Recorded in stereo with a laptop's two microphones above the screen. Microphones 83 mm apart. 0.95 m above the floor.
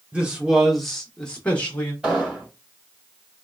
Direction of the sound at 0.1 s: 15° right (ahead or behind).